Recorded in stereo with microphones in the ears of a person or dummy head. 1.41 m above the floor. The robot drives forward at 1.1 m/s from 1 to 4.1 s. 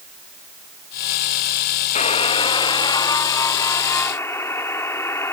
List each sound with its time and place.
1.9 s a buzzer: 35° left (ahead or behind); by 5.3 s 15° left (ahead or behind)